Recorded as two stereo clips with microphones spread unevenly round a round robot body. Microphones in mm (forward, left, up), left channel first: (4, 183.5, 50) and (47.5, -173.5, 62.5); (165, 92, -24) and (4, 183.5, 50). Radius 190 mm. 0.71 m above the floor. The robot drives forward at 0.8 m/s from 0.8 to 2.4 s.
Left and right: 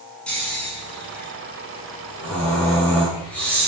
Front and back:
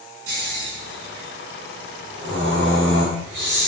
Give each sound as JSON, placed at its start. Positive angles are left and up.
{"t": 0.3, "sound": "snoring", "azimuth_deg": -175, "distance_m": 9.5}